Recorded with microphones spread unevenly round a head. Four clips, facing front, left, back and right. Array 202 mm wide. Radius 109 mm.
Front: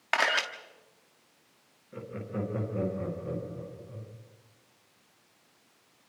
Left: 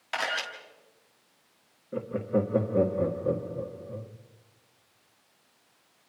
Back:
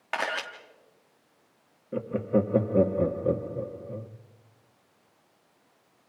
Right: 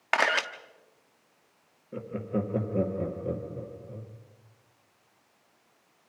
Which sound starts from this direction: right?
A camera shutter, at 0.1 s.